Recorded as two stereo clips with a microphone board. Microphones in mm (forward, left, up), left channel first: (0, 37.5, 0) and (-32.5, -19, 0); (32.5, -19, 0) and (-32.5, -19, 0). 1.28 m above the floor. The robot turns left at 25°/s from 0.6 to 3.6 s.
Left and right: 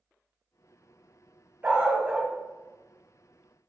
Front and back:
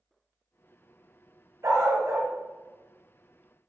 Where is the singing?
I don't hear singing.